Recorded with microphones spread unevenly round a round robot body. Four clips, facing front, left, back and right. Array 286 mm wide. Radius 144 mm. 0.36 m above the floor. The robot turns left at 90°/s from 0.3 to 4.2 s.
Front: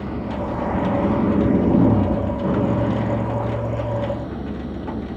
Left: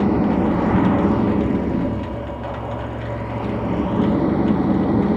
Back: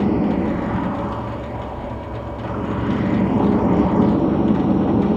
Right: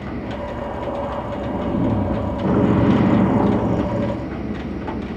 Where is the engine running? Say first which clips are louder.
Left 10 dB, back 8 dB; 135° left; by 5.2 s 140° left.